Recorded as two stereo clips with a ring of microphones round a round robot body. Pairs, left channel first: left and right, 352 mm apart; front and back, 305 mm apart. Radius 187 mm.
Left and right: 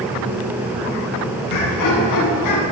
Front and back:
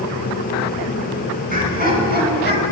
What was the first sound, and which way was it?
Laughter, 120° left.